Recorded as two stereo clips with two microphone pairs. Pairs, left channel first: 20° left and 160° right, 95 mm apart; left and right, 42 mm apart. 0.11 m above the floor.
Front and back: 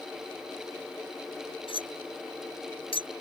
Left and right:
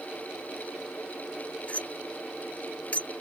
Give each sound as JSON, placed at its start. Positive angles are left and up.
{"t": 1.7, "sound": "cutlery clinking", "azimuth_deg": 35}